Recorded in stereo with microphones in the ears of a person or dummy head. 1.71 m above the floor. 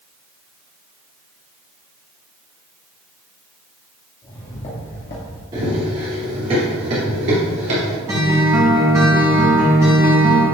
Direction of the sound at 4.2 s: 20° left (ahead or behind).